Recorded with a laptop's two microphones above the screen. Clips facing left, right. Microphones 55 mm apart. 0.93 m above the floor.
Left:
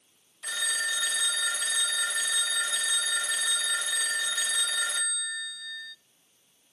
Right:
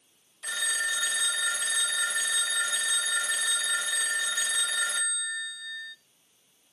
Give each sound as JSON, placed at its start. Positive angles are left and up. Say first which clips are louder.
{"t": 0.4, "sound": "a phone ringing", "louder": "right 1 dB", "side_deg": -10, "distance_m": 0.6}